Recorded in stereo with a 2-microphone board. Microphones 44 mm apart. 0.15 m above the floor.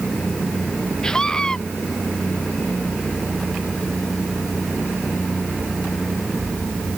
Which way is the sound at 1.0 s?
15° left (ahead or behind).